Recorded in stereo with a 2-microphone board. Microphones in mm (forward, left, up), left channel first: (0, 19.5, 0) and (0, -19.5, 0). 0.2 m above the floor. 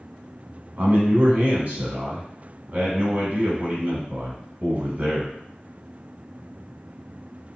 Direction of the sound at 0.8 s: 40° right (ahead or behind).